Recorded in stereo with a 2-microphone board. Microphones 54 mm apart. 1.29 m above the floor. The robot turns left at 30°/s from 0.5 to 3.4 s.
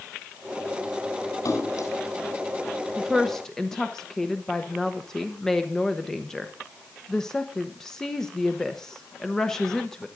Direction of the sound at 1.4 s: 75° left (ahead or behind).